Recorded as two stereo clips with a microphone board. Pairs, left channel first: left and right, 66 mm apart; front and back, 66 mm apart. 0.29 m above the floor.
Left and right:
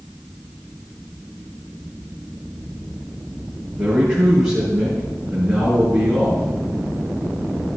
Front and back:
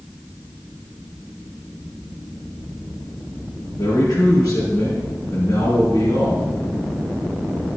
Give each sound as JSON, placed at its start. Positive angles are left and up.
{"t": 3.8, "sound": "a man speaking", "azimuth_deg": -5, "distance_m": 4.0}